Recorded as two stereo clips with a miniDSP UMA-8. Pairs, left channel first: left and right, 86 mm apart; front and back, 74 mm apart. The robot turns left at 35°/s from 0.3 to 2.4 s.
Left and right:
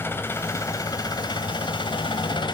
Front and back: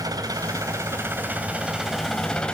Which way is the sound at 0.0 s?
150° left.